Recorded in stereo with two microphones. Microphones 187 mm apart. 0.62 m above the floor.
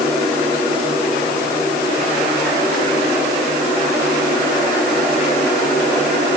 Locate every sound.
Only background noise.